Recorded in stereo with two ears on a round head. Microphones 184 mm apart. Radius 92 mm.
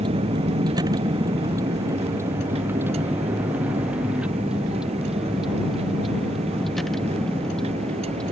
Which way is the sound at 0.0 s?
25° right (ahead or behind).